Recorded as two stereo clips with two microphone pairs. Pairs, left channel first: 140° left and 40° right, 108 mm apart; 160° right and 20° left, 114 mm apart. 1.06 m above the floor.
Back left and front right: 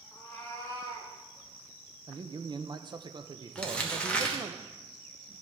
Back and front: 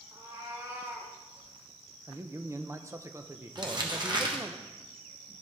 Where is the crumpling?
60° left, 1.2 m.